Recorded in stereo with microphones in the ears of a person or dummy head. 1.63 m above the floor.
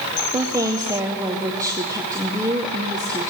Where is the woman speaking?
15° right (ahead or behind), 0.6 m.